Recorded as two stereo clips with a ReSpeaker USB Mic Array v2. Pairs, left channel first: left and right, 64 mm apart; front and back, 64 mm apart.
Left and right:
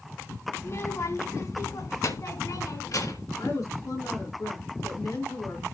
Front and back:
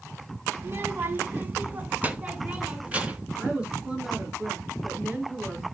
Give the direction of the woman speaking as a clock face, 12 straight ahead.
8 o'clock.